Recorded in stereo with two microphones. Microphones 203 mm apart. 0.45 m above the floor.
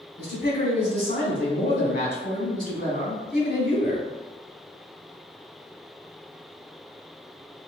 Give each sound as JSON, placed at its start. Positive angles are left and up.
{"t": 0.2, "sound": "a man speaking", "side_deg": 50, "distance_m": 1.4}